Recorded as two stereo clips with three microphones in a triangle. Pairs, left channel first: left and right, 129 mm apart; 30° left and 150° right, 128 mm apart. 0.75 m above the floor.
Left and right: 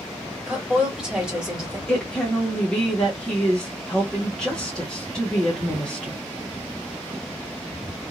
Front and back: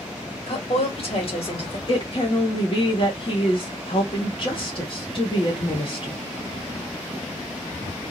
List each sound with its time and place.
0.5 s a woman speaking: 5° right, 1.8 m
1.9 s a woman speaking: 10° left, 1.4 m